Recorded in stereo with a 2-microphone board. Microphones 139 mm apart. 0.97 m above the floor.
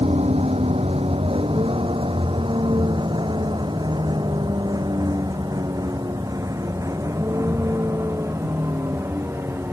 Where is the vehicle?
50° right (ahead or behind); by 9.7 s 20° right (ahead or behind).